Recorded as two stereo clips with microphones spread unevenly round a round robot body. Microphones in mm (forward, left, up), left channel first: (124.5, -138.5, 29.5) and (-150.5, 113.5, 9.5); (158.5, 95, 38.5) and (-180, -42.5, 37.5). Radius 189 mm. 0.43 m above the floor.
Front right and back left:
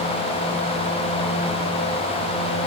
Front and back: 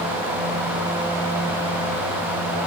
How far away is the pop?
I don't hear a pop.